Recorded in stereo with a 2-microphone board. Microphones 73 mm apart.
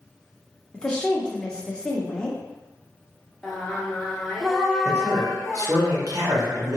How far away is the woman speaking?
About 0.8 m.